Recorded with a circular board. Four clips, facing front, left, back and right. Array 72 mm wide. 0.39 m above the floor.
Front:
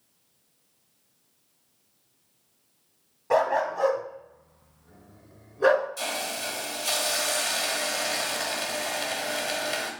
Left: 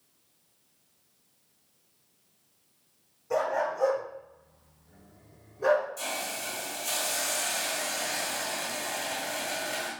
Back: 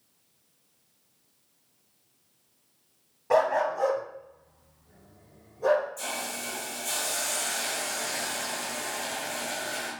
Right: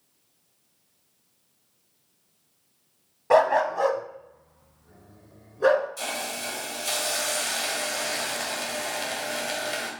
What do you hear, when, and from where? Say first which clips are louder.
3.3 s a dog barking: right 8 dB, even; 90° right, 1.0 m; by 5.9 s 25° right, 2 m
6.0 s a hiss: right 3 dB, front 3 dB; 25° right, 1.6 m